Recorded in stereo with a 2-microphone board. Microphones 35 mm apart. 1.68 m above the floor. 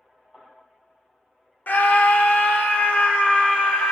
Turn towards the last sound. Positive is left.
turn(degrees=50)  # may be behind; listen again after turning